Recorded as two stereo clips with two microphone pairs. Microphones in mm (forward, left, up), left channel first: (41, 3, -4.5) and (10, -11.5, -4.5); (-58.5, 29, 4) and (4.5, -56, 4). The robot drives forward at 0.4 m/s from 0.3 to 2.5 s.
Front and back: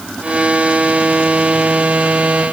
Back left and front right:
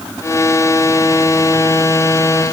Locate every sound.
Only background noise.